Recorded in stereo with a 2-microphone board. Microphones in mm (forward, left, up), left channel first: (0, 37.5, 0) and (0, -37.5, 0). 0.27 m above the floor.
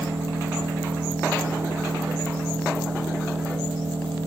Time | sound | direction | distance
0.0 | an engine running | 75° right (ahead or behind) | 6.5 m